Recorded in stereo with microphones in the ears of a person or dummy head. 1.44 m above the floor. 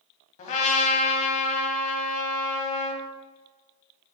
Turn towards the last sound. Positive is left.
turn(degrees=40)  # may be behind; listen again after turning